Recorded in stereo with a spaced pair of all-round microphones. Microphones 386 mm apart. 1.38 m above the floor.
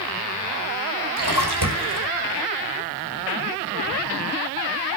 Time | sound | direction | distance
1.2 | a splash | 85° right | 4 m